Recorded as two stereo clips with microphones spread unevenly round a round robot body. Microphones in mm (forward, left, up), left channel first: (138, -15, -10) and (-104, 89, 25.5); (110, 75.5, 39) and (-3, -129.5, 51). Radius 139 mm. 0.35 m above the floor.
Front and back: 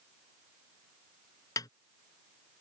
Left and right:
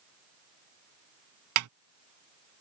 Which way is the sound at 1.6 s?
105° right.